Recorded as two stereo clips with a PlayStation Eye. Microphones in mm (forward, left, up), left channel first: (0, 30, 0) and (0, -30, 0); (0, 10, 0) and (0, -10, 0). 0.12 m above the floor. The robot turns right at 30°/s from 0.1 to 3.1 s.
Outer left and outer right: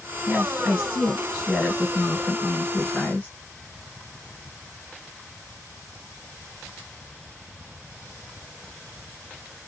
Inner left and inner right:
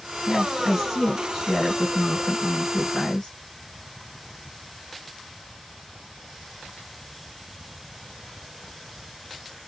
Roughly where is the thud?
No thud in this recording.